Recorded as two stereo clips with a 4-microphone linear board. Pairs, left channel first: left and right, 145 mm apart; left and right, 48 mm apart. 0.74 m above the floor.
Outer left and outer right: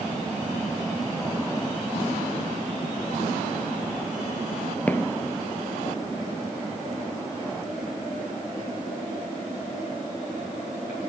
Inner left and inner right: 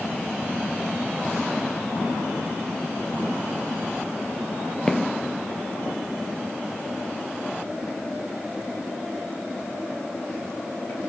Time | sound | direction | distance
4.9 | footsteps | 10° left (ahead or behind) | 0.9 m